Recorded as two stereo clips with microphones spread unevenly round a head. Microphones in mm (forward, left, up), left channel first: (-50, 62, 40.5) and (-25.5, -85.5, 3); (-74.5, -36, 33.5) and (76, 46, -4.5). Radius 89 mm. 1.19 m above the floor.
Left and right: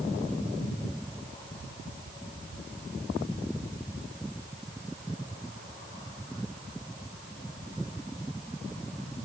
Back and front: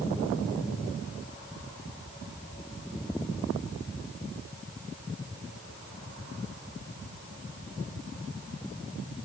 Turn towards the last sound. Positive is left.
No sound to turn to.